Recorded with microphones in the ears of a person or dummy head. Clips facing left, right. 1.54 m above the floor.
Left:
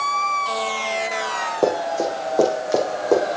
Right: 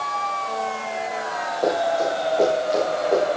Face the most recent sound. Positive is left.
turn(degrees=75)  # may be behind; listen again after turning